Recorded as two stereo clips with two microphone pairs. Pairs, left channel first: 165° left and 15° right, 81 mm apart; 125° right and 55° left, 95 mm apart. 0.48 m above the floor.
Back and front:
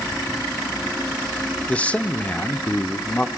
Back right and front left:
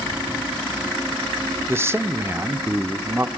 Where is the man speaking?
105° left, 0.8 m.